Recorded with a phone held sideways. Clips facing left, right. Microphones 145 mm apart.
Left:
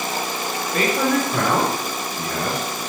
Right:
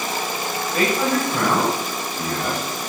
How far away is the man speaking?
About 3.5 m.